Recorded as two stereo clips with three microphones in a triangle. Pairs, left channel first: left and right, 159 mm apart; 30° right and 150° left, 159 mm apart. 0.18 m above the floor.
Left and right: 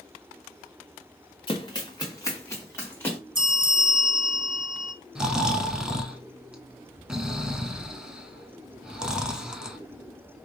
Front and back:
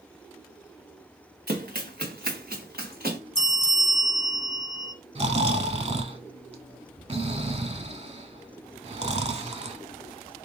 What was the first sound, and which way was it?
Running footsteps, 145° left.